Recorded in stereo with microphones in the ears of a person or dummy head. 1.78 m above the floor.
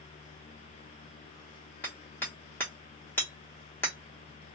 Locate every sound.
1.8 s hammering: 10° left (ahead or behind), 1.1 m